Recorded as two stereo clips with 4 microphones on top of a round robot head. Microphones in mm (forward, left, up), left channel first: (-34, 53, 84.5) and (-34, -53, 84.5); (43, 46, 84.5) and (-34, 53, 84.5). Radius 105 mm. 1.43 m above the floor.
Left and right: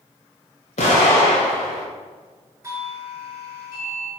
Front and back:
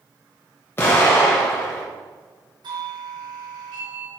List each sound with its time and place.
0.8 s an explosion: 55° left, 2.5 m
2.6 s a doorbell: 155° right, 3.5 m